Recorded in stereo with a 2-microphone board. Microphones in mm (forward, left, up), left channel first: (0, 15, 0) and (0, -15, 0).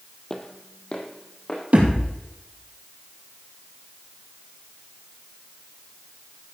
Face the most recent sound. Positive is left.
turn(degrees=-50)  # may be behind; listen again after turning